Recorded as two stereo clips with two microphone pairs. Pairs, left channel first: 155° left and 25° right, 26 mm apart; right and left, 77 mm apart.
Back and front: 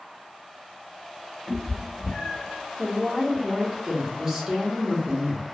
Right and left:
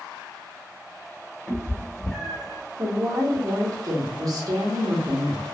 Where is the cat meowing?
135° right, 1.5 m; by 2.6 s 170° left, 2.0 m.